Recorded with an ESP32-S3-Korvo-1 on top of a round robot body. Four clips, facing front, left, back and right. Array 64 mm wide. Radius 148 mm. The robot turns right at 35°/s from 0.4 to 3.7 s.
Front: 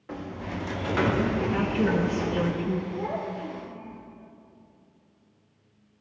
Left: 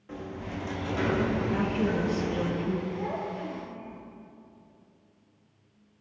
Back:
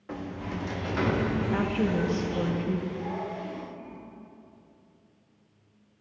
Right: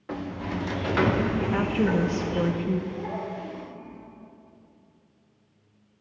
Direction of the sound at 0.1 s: 90° right.